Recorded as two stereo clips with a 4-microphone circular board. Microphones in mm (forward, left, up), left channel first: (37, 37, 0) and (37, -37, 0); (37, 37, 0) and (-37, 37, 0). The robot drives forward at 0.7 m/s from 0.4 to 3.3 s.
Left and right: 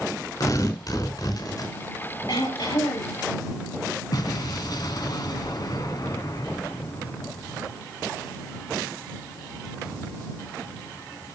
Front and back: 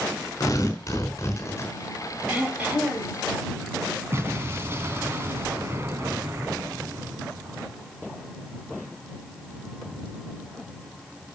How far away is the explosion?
About 2.5 m.